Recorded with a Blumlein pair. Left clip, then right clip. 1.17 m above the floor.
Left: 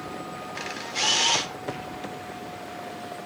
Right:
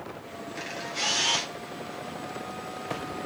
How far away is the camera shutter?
About 3 m.